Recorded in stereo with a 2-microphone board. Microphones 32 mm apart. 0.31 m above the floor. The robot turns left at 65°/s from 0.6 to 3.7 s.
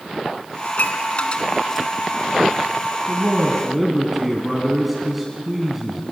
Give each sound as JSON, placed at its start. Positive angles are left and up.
{"t": 0.7, "sound": "dishes clattering", "side_deg": 70, "distance_m": 1.9}
{"t": 3.1, "sound": "a man speaking", "azimuth_deg": -135, "distance_m": 3.5}